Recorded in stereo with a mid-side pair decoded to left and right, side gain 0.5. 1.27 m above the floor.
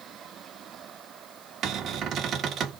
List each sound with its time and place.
1.6 s a cupboard door: 60° right, 1.2 m